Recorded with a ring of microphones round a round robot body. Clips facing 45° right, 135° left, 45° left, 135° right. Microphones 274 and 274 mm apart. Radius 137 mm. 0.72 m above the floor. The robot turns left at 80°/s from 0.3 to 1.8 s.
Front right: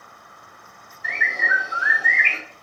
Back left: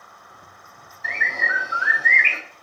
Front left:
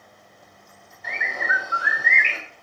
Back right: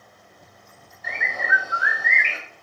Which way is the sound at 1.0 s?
145° left.